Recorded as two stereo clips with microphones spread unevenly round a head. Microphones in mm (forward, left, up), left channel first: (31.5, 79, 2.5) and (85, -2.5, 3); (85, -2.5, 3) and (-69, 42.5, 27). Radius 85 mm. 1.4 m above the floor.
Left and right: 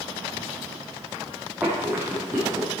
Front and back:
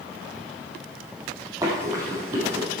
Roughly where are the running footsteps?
Behind right.